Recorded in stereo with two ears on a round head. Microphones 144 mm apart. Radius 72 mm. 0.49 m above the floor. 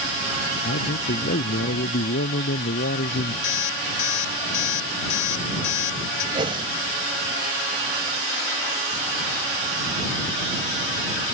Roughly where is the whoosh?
Right.